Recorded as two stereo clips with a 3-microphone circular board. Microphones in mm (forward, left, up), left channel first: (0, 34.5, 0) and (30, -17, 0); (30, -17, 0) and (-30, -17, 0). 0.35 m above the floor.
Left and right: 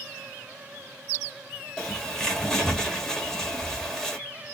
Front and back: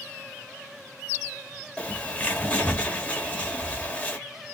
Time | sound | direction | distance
1.8 | a bird | 45° left | 1.5 m